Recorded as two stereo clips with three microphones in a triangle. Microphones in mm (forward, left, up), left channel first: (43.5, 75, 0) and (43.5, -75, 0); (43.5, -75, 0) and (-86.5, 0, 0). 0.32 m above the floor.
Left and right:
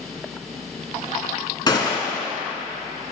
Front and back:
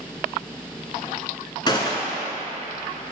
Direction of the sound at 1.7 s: 25° left.